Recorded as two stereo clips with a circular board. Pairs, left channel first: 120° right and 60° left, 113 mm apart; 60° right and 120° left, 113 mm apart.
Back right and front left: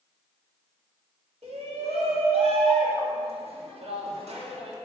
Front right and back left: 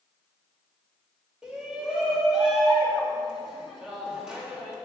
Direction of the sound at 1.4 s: 35° left.